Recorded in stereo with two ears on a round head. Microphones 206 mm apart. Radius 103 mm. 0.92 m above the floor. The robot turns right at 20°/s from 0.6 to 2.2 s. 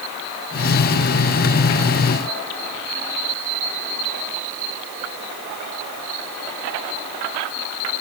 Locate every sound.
Only background noise.